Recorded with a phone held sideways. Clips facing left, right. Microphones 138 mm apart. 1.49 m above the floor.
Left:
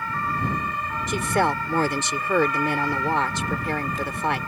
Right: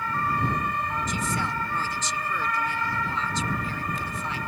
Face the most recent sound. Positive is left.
turn(degrees=75)  # may be behind; listen again after turning